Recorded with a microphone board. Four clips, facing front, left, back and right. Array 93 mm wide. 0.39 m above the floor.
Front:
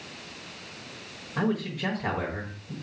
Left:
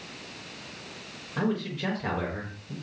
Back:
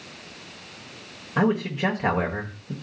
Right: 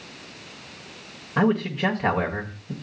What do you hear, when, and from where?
1.4 s a man speaking: 140° right, 1.3 m